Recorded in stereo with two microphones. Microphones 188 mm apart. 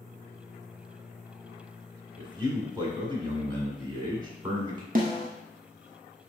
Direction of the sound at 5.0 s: 50° right (ahead or behind).